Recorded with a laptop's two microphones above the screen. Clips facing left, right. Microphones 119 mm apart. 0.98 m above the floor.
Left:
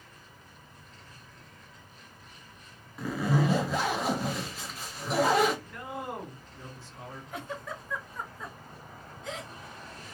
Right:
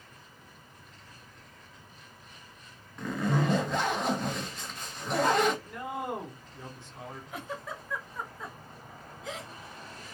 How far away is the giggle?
About 0.8 m.